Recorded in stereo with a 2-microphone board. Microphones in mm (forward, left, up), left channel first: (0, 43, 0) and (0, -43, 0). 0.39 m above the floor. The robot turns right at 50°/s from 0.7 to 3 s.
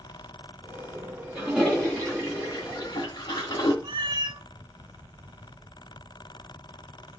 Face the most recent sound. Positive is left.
turn(degrees=-60)  # may be behind; listen again after turning